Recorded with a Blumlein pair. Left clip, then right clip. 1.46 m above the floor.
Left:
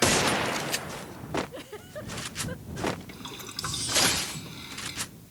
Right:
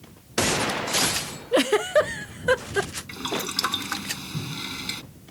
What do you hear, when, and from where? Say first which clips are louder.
1.5 s a giggle: right 21 dB; 50° right
3.1 s boiling: right 11 dB; 65° right